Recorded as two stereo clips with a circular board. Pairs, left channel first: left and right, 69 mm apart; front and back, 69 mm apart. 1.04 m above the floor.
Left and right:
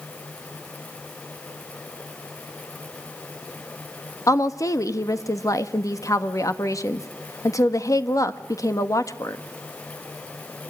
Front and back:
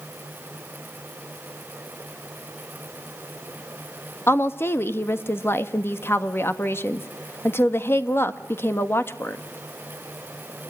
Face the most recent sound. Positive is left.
turn(degrees=55)